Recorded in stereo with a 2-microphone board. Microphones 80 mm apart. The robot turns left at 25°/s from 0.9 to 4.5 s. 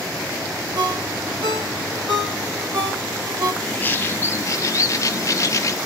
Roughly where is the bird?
Left.